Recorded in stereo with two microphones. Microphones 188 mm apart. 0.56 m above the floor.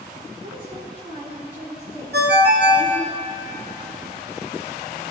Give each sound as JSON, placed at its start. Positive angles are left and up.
{"t": 0.4, "sound": "a woman speaking", "side_deg": -55, "distance_m": 2.5}
{"t": 2.1, "sound": "a ringtone", "side_deg": -65, "distance_m": 0.6}